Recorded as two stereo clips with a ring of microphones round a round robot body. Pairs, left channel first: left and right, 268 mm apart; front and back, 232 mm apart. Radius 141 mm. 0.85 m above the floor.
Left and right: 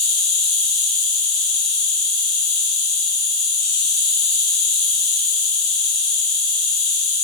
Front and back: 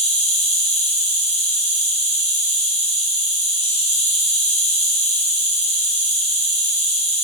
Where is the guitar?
I don't hear a guitar.